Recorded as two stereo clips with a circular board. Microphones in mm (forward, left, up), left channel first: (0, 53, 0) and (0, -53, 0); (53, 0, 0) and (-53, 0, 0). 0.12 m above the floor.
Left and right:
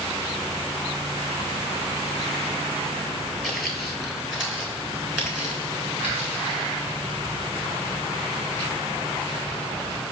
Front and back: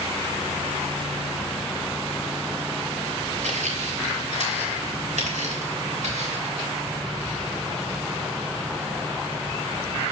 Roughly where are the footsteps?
Behind.